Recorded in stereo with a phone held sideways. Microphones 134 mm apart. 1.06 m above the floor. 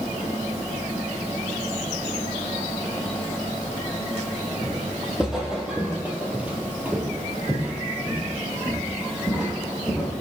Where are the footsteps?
Centre (ahead or behind), 1.9 m; by 10.1 s 10° right (ahead or behind), 3.5 m.